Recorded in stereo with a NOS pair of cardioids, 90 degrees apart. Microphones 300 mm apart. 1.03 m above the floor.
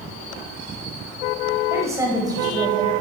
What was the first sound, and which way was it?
A woman speaking, 10° right.